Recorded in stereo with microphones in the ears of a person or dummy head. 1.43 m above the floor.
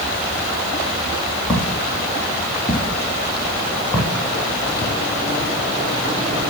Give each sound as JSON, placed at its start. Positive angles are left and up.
{"t": 1.5, "sound": "footsteps", "side_deg": 5, "distance_m": 6.0}